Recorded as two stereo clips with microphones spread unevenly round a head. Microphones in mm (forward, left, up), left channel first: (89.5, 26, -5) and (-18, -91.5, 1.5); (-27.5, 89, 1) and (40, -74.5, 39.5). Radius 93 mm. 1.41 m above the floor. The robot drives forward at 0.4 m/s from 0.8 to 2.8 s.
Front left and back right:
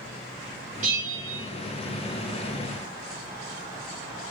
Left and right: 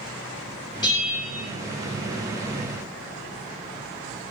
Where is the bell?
175° left, 1.0 m.